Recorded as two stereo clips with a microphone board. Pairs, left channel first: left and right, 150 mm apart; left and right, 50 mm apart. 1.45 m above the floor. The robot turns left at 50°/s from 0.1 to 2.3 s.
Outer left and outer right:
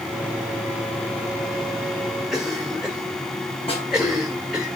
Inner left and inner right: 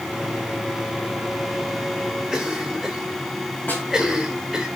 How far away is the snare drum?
About 6.5 m.